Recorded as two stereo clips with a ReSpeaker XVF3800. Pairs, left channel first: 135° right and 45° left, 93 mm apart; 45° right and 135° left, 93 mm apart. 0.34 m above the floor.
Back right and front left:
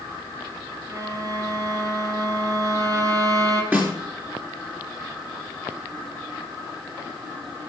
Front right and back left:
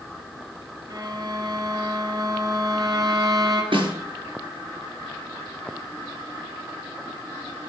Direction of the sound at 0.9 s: 95° left.